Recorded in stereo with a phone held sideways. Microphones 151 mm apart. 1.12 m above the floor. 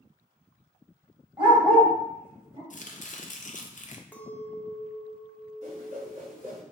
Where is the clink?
10° left (ahead or behind), 0.6 m.